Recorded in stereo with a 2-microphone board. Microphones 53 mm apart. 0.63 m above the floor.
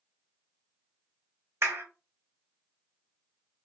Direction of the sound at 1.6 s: 60° right (ahead or behind).